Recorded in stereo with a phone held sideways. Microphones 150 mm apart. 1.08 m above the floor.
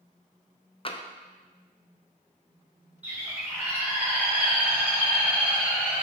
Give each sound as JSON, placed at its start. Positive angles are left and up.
{"t": 0.8, "sound": "tapping", "side_deg": 40, "distance_m": 0.6}
{"t": 3.0, "sound": "a bird", "side_deg": -10, "distance_m": 3.0}